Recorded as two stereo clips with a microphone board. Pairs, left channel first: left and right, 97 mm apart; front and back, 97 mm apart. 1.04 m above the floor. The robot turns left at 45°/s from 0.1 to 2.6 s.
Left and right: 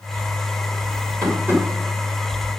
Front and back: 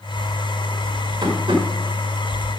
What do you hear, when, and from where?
1.2 s tapping: 140° right, 2 m; by 1.6 s 160° right, 2 m